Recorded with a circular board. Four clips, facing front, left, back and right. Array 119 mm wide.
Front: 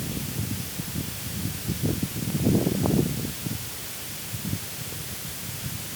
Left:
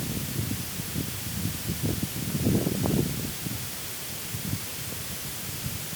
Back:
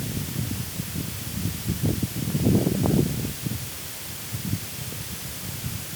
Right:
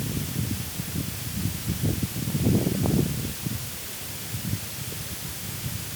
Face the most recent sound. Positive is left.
No sound to turn to.